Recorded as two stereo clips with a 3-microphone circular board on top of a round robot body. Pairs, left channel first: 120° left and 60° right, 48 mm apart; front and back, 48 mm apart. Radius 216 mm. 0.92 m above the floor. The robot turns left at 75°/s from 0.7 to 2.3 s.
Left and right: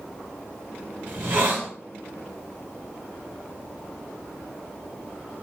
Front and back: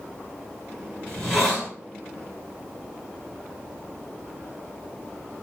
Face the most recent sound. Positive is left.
turn(degrees=-155)